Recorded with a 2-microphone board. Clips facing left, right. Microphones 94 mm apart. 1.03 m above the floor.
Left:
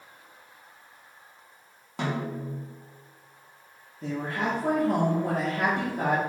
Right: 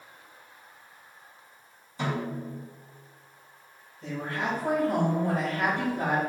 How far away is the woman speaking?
About 2.5 m.